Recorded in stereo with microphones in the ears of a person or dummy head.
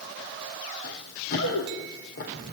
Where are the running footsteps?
60° left (ahead or behind), 5 m; by 2.5 s 55° left (ahead or behind), 5.5 m.